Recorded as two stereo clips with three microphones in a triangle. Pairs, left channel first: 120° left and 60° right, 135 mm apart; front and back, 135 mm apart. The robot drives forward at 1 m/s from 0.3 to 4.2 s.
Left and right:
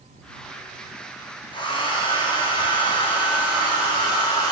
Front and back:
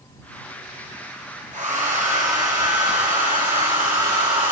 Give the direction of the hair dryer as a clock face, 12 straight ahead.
6 o'clock.